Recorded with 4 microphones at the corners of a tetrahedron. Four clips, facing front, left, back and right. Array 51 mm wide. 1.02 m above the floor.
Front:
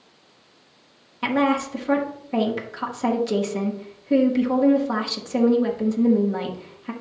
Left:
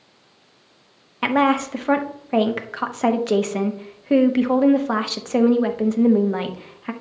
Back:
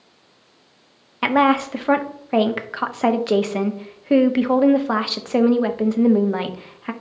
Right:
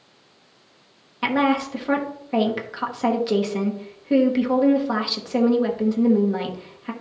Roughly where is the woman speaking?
Behind left.